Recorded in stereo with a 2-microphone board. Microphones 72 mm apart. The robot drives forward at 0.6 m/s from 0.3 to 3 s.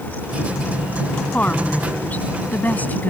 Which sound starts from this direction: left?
A woman speaking, at 1.2 s.